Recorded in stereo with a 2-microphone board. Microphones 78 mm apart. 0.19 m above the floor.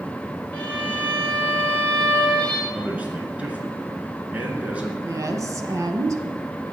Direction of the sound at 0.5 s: 20° left (ahead or behind).